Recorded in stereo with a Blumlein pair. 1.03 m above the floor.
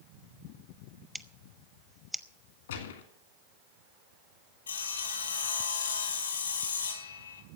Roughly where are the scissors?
Ahead.